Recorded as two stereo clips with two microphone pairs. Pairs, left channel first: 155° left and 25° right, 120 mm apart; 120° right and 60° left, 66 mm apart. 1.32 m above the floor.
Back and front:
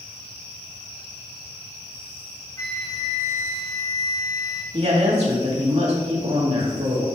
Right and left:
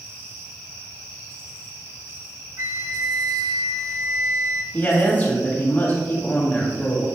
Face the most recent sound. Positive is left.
turn(degrees=-50)